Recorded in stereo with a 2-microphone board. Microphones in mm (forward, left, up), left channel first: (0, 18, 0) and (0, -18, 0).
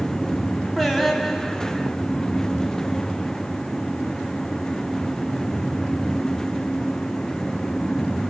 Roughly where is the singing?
Centre.